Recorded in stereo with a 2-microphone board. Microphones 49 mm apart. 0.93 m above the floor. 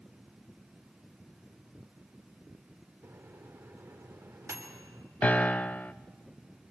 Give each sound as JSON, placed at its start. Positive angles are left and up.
{"t": 3.0, "sound": "a microwave", "side_deg": -75, "distance_m": 3.0}
{"t": 5.2, "sound": "a piano", "side_deg": 30, "distance_m": 0.7}